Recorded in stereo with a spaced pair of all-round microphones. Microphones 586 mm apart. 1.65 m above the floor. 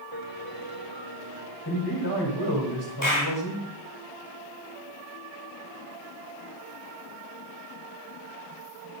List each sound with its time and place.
0.1 s a piano: 55° right (ahead or behind), 2.5 m
1.6 s a man speaking: 40° left (ahead or behind), 5 m
3.0 s a clap: 30° left (ahead or behind), 6 m